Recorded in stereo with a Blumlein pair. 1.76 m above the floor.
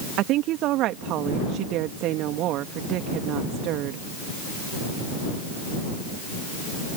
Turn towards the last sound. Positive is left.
turn(degrees=-35)